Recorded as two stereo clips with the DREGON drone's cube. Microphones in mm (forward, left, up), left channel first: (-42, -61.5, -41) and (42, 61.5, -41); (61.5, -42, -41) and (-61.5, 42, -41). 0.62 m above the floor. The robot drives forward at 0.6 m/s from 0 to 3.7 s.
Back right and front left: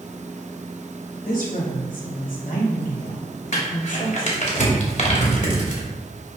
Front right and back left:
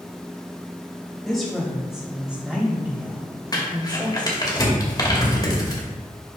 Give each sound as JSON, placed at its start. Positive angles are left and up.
{"t": 1.2, "sound": "a woman speaking", "azimuth_deg": -120, "distance_m": 3.5}
{"t": 3.5, "sound": "crumpling", "azimuth_deg": -95, "distance_m": 2.5}